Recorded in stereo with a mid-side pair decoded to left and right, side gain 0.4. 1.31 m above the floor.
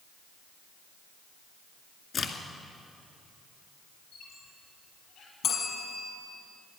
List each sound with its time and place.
2.1 s a crack: 50° left, 2 m
4.1 s a squeak: 70° left, 8 m
5.4 s a bell: 65° left, 5 m